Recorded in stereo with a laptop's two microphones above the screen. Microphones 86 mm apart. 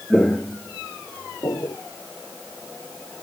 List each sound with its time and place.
0.1 s footsteps: 5° left (ahead or behind), 0.9 m; by 1.8 s 55° left (ahead or behind), 1.6 m